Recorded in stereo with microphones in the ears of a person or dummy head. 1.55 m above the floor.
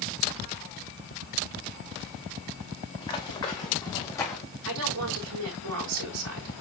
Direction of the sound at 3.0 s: 30° left (ahead or behind).